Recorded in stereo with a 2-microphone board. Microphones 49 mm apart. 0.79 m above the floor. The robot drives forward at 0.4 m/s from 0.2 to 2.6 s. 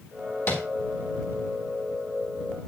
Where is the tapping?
60° left (ahead or behind), 3.5 m.